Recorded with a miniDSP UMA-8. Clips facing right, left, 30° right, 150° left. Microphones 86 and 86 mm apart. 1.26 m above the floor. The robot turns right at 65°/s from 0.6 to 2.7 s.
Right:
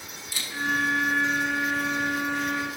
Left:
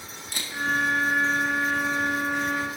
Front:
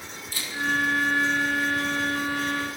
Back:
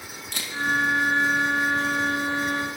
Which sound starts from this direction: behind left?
A camera shutter, at 0.3 s.